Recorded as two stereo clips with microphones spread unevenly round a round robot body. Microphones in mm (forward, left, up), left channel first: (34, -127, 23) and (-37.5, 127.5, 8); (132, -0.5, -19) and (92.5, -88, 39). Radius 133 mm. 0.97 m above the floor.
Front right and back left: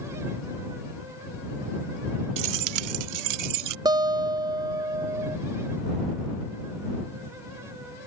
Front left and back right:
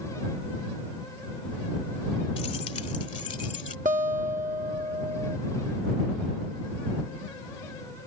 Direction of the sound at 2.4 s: 130° left.